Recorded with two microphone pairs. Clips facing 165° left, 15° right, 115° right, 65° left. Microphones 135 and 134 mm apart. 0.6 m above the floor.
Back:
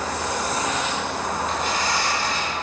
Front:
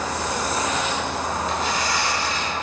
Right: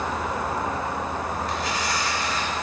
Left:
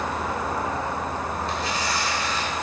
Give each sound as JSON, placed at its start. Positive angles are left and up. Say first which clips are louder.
{"t": 1.5, "sound": "tearing paper", "louder": "even, even", "azimuth_deg": 125, "distance_m": 1.2}